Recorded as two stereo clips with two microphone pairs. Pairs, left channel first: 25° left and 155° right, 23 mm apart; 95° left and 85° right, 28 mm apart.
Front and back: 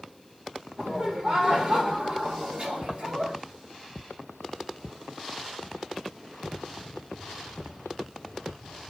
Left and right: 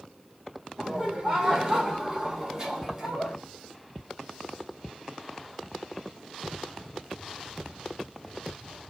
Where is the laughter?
125° right, 1.4 m; by 3.4 s 155° right, 2.5 m.